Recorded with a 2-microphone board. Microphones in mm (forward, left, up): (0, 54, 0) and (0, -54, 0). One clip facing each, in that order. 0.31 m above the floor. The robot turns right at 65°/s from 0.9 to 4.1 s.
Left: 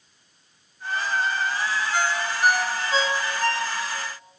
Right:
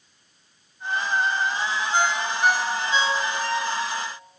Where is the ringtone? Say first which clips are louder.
Right 2 dB; 25° right (ahead or behind), 1.8 m; by 4.1 s 65° left (ahead or behind), 1.8 m.